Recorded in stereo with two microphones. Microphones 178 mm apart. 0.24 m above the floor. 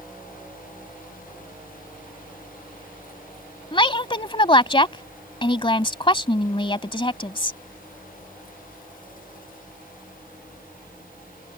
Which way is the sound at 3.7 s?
30° left (ahead or behind).